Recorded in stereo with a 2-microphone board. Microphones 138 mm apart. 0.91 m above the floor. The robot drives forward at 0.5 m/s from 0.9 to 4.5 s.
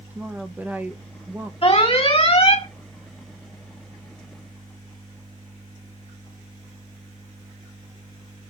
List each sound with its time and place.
0.1 s a woman speaking: 15° right (ahead or behind), 0.9 m
1.6 s an alarm: 45° left (ahead or behind), 2.5 m; by 2.7 s 50° left (ahead or behind), 2 m